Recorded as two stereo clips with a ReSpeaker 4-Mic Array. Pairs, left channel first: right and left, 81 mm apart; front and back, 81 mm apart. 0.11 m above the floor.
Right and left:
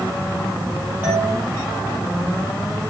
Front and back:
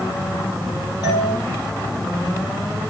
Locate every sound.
1.0 s a doorbell: 25° left, 4.5 m